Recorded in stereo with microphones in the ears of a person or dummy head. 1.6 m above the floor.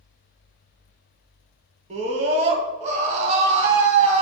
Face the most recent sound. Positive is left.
turn(degrees=-40)  # may be behind; listen again after turning